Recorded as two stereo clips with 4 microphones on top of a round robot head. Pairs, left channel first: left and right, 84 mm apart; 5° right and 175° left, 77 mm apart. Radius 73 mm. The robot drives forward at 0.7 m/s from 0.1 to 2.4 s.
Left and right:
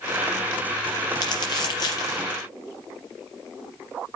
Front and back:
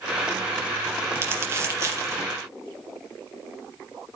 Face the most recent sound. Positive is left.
turn(degrees=130)